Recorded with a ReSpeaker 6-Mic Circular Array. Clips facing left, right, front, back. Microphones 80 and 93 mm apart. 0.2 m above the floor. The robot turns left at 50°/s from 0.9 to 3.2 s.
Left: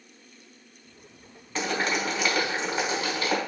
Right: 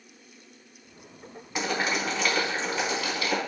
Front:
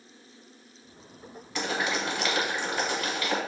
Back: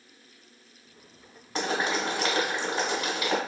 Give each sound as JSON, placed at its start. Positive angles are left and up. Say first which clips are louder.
{"t": 1.6, "sound": "boiling", "louder": "left 1 dB, back 2 dB", "azimuth_deg": -155, "distance_m": 0.9}